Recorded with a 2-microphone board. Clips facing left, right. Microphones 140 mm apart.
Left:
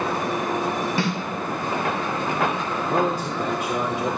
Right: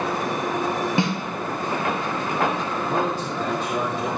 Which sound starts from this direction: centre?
A man speaking, at 2.9 s.